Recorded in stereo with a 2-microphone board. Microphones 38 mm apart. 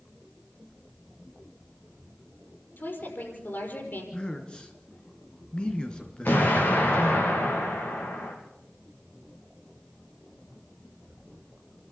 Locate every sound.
2.8 s a woman speaking: 65° left (ahead or behind), 6 m
4.1 s a man speaking: 25° left (ahead or behind), 3 m
6.2 s an explosion: 70° left (ahead or behind), 6.5 m